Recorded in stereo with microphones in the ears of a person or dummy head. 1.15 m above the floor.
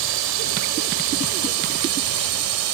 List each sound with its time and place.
0.0 s a drone: 70° right (ahead or behind); by 2.8 s 80° right